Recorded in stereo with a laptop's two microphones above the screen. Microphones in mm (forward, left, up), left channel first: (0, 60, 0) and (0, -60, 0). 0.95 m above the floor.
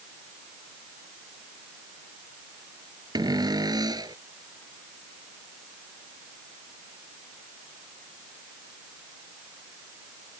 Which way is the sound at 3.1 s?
35° right (ahead or behind).